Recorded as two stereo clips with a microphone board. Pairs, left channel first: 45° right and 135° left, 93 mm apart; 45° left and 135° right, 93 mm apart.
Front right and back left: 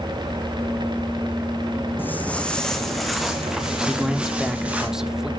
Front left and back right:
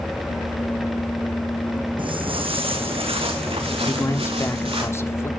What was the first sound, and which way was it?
Footsteps, 115° right.